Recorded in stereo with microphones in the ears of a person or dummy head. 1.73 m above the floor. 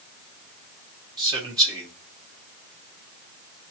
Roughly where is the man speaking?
Centre.